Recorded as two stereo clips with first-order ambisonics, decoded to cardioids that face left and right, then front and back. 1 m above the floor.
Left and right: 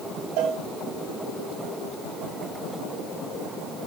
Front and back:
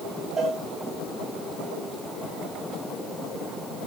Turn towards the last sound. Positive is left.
turn(degrees=-100)